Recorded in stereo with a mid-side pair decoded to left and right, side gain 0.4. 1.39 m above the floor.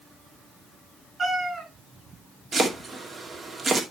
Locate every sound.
1.2 s a cat meowing: 30° right, 4.5 m
2.5 s chopping: 40° right, 2.5 m